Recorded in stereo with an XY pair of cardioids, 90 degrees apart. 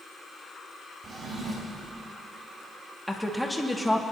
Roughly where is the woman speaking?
Ahead.